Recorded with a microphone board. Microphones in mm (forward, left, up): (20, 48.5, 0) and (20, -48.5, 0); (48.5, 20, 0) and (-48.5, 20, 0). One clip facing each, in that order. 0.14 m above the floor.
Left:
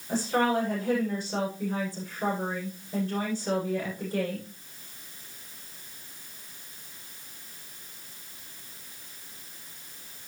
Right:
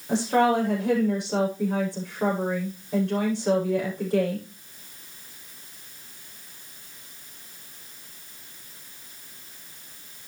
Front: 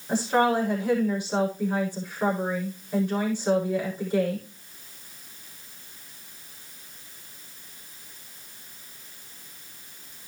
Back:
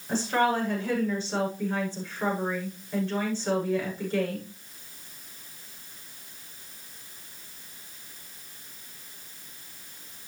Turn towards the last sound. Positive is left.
turn(degrees=-75)